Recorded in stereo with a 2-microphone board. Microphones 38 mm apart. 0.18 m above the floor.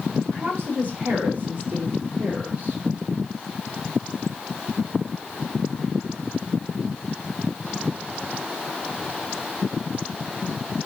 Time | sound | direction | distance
0.3 | a woman speaking | 35° right (ahead or behind) | 4.5 m